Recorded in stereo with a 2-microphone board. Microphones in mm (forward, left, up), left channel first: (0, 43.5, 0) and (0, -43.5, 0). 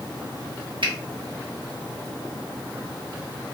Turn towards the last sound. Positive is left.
turn(degrees=-70)  # may be behind; listen again after turning